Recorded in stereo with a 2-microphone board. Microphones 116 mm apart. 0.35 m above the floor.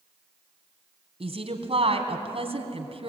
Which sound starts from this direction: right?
A woman speaking, at 1.2 s.